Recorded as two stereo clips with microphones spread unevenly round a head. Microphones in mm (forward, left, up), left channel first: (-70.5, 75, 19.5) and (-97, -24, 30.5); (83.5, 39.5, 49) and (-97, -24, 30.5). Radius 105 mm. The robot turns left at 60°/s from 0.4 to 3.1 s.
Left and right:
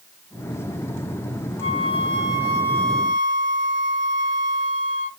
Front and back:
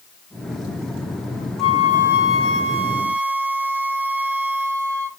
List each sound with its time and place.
1.6 s a flute: 90° left, 1.3 m; by 5.1 s straight ahead, 1.3 m